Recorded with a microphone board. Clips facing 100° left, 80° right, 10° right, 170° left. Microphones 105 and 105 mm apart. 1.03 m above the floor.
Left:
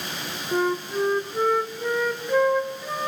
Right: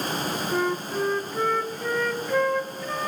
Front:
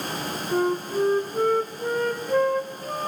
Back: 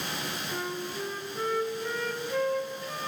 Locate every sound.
0.5 s a flute: 20° left, 0.8 m